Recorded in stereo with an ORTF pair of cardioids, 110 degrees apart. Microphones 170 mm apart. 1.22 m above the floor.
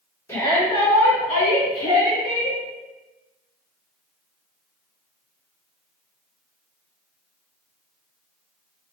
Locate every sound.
0.3 s a shout: 15° left, 1.1 m; by 2.6 s 70° left, 1.7 m